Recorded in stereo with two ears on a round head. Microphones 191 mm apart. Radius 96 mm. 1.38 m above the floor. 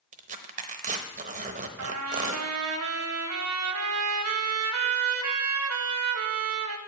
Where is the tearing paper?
35° right (ahead or behind), 0.8 m.